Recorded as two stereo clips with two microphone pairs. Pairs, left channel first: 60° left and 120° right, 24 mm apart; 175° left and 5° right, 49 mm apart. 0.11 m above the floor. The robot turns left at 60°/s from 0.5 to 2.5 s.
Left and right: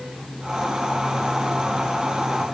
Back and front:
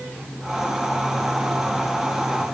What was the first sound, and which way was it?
Only background noise.